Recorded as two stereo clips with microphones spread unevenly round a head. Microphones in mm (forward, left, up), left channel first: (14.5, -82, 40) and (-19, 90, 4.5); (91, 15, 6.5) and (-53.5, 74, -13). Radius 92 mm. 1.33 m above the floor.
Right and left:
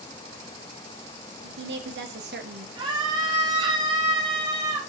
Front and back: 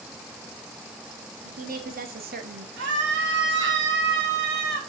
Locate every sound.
1.4 s a woman speaking: 125° left, 2.5 m; by 2.7 s 140° left, 1.7 m
2.8 s a scream: 160° left, 3 m